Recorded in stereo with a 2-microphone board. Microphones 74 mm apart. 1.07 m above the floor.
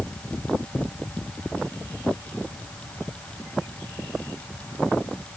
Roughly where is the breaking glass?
No breaking glass in this recording.